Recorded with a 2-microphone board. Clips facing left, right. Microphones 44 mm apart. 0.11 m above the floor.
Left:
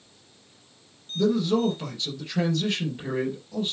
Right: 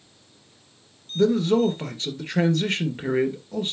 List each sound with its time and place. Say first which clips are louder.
1.1 s a man speaking: right 3 dB; 45° right (ahead or behind), 2.5 m